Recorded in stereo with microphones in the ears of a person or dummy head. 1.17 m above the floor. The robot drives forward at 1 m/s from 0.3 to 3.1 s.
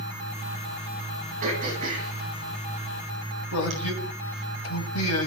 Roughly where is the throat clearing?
Right.